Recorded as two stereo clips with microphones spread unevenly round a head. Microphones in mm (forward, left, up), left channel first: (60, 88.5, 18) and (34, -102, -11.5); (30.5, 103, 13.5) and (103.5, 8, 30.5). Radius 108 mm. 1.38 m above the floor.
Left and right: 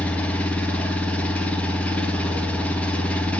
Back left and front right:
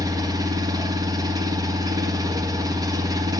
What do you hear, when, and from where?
0.0 s an engine running: straight ahead, 3 m